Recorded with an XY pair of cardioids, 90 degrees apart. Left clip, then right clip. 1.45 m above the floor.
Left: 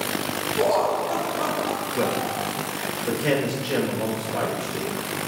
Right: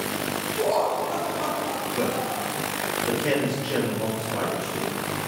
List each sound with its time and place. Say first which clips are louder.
0.6 s laughter: left 2 dB; 70° left, 1.7 m; by 2.5 s 65° left, 3 m
1.9 s a man speaking: left 1 dB; 30° left, 1.9 m